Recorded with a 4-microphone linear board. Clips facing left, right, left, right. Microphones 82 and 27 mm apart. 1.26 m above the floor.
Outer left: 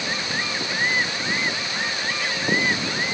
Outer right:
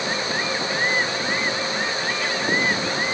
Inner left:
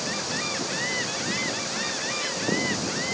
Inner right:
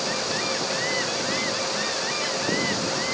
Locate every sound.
Only background noise.